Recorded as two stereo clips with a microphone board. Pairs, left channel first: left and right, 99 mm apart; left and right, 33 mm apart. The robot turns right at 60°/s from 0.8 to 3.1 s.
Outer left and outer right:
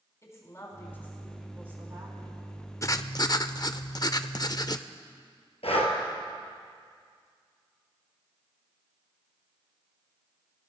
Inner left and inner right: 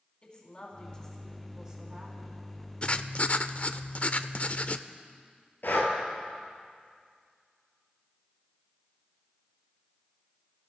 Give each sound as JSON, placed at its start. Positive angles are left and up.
{"t": 0.2, "sound": "a woman speaking", "azimuth_deg": 150, "distance_m": 4.5}
{"t": 2.8, "sound": "writing", "side_deg": 30, "distance_m": 0.5}
{"t": 5.6, "sound": "breathing", "side_deg": 85, "distance_m": 2.5}